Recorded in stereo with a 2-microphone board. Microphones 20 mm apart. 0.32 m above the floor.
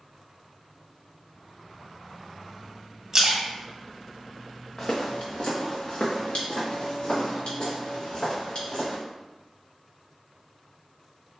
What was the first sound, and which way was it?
A splash, 25° right (ahead or behind).